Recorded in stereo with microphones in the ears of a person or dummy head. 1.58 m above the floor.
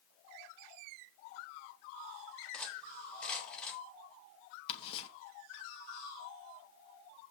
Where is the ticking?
30° left (ahead or behind), 3 m.